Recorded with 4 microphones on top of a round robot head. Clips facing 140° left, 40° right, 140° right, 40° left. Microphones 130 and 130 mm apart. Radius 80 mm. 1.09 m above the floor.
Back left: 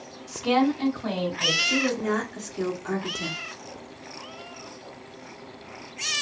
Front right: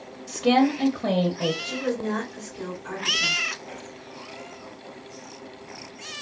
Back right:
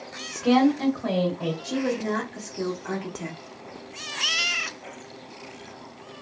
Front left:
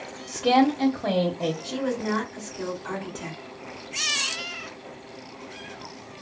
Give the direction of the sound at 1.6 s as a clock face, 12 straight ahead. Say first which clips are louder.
Back left 2 dB, back right 1 dB; 6 o'clock.